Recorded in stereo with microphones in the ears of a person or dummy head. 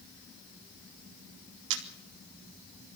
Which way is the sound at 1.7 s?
65° right (ahead or behind).